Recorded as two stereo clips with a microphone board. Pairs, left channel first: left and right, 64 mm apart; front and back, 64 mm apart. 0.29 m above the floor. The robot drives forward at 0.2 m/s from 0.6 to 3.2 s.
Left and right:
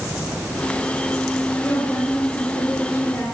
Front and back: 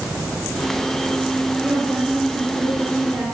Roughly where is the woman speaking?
Behind.